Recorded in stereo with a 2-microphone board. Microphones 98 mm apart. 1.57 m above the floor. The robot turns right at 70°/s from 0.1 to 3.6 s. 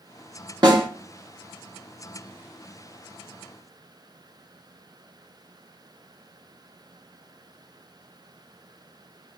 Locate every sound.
0.6 s a snare drum: 45° right (ahead or behind), 1.2 m; by 0.9 s 40° right (ahead or behind), 1.2 m